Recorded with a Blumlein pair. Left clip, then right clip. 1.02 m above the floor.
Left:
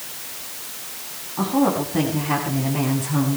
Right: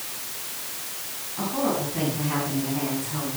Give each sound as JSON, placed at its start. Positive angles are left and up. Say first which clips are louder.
{"t": 1.4, "sound": "a woman speaking", "louder": "left 5 dB", "azimuth_deg": 65, "distance_m": 8.5}